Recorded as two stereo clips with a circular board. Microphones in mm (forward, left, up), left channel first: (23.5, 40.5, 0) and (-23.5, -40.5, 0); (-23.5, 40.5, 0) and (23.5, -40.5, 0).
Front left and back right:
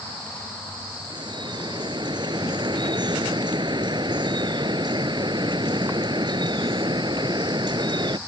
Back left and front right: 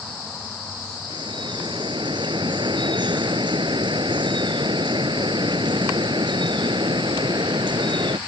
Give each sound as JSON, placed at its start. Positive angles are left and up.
{"t": 1.1, "sound": "dripping", "azimuth_deg": -90}